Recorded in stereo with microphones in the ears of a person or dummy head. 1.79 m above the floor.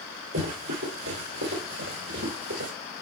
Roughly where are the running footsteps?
Right.